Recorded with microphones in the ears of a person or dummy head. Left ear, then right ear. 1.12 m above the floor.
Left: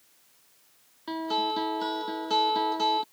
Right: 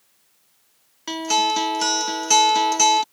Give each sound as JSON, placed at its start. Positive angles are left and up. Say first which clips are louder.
{"t": 1.1, "sound": "a guitar", "louder": "right 8 dB", "side_deg": -70}